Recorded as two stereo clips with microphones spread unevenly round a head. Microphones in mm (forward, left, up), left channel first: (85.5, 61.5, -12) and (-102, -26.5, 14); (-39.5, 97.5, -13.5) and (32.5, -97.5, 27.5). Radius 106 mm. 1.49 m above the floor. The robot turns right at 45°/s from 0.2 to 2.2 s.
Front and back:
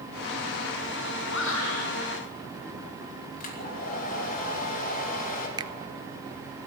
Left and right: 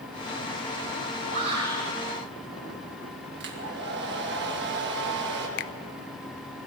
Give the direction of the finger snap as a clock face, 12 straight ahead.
7 o'clock.